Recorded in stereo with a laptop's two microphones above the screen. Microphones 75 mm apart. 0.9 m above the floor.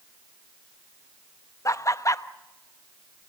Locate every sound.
1.6 s laughter: 45° left (ahead or behind), 0.9 m